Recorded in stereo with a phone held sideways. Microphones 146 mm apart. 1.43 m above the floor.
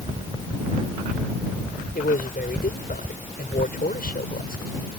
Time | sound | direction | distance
1.9 | a man speaking | 90° left | ?